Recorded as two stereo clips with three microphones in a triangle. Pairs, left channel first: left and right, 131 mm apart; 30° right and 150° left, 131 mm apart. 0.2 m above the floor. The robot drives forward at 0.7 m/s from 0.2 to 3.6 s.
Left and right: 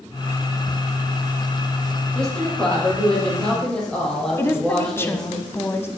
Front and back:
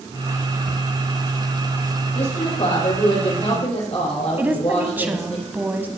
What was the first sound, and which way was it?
A woman speaking, 5° left.